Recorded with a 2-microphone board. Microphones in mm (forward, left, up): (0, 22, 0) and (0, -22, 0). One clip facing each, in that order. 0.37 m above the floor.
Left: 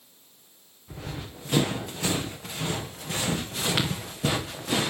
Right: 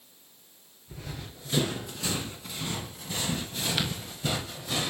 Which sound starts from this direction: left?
Running footsteps, at 0.9 s.